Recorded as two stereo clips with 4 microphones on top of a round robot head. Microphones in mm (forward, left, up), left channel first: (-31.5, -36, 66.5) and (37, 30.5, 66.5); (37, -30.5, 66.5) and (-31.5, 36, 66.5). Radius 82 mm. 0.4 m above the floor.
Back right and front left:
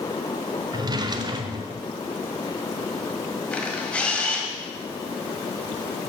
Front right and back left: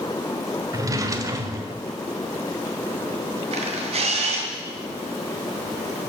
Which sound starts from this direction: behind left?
A camera shutter, at 3.5 s.